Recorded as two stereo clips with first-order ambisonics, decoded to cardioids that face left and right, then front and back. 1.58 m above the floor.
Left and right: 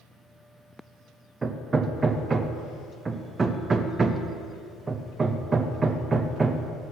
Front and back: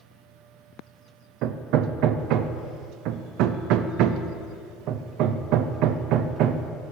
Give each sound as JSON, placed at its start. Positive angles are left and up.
{"t": 1.4, "sound": "hammering", "azimuth_deg": -160, "distance_m": 0.6}